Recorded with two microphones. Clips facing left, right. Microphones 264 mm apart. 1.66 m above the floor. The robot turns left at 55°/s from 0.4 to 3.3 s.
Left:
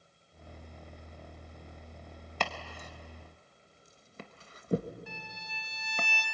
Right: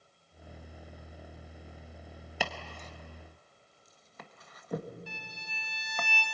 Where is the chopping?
10° right (ahead or behind), 1.3 m; by 6.1 s 30° left (ahead or behind), 1.3 m.